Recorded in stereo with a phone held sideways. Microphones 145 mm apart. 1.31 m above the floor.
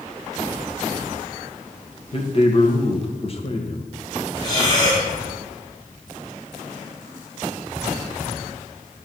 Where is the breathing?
30° left (ahead or behind), 4 m.